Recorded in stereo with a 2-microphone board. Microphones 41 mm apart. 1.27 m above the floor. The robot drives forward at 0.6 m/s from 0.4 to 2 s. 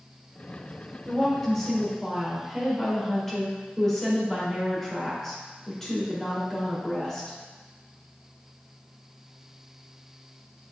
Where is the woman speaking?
10° left (ahead or behind), 2.5 m.